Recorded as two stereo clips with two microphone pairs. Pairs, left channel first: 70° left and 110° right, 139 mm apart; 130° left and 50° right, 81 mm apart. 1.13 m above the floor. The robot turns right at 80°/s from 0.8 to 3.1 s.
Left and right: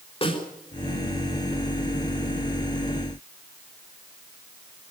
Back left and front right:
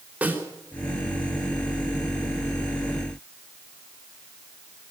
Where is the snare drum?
20° left, 4.5 m.